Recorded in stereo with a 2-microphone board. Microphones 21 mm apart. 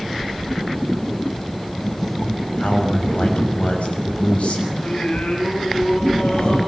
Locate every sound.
2.6 s a man speaking: 80° left, 6 m
4.7 s singing: 80° left, 5.5 m